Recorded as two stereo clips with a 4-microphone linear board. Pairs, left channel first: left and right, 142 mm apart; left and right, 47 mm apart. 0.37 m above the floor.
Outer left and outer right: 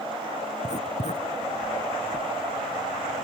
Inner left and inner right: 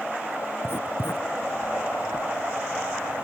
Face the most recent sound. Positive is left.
turn(degrees=55)  # may be behind; listen again after turning